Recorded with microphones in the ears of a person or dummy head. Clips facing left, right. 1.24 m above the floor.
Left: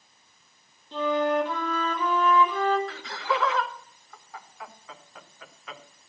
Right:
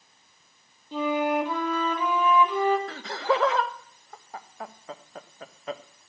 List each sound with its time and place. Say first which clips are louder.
0.9 s a flute: left 1 dB; 10° right (ahead or behind), 1.8 m
2.9 s laughter: right 4 dB; 35° right (ahead or behind), 1.1 m